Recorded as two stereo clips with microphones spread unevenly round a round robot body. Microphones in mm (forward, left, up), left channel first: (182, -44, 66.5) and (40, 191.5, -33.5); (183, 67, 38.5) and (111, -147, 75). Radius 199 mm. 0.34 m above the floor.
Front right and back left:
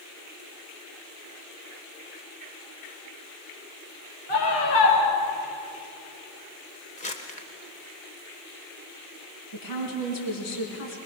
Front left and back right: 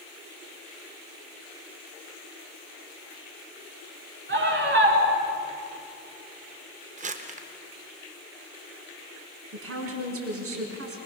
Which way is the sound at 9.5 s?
90° right.